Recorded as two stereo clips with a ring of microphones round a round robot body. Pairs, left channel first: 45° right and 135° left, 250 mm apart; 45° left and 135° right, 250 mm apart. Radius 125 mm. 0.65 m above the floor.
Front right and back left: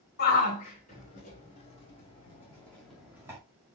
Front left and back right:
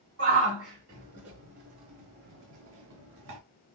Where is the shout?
95° right, 2.5 m; by 3.4 s 150° right, 1.3 m.